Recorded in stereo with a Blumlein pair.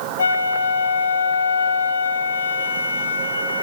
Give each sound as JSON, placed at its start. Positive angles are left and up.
{"t": 0.2, "sound": "a flute", "azimuth_deg": 70, "distance_m": 4.5}